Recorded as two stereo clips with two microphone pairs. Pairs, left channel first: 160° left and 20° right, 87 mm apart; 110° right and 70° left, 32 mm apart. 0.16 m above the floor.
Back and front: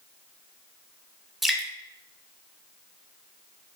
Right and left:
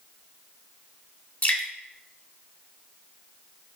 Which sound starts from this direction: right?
Dripping, at 1.4 s.